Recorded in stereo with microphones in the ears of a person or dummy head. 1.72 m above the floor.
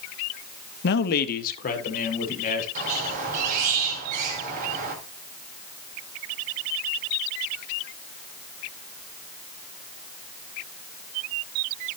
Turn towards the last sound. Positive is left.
turn(degrees=-45)  # may be behind; listen again after turning